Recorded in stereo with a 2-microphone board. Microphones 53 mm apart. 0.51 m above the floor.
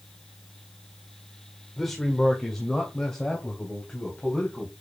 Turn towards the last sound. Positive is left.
turn(degrees=15)  # may be behind; listen again after turning